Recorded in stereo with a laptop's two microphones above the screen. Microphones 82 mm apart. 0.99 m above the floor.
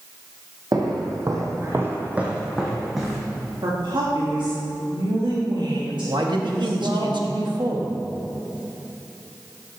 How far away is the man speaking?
About 1.3 m.